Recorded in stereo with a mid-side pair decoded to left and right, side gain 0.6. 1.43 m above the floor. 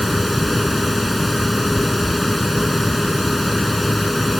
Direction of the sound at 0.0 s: 5° left.